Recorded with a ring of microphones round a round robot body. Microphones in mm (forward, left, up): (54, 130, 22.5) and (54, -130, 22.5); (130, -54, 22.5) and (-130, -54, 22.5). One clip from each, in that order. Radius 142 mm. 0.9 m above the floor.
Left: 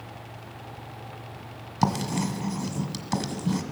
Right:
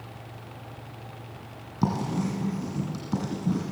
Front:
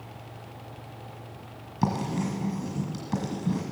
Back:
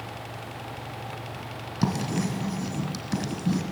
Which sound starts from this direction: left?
Writing, at 1.8 s.